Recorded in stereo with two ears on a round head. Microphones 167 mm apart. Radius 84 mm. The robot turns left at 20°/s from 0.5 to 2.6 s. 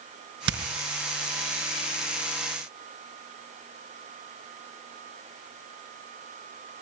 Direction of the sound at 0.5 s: 70° right (ahead or behind).